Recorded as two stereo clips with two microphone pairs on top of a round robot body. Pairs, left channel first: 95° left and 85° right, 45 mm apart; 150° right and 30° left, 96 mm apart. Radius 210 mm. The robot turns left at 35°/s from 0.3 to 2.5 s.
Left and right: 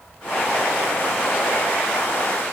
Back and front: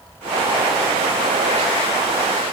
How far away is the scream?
No scream in this recording.